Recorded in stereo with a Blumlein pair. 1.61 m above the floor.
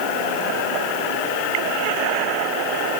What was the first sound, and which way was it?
Only background noise.